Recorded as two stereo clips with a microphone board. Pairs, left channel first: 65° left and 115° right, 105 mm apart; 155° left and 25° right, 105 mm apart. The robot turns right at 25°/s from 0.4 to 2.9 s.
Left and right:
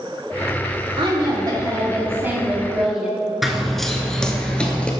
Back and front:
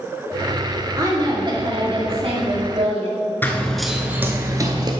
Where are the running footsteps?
160° left, 0.8 m; by 4.9 s 5° right, 1.1 m.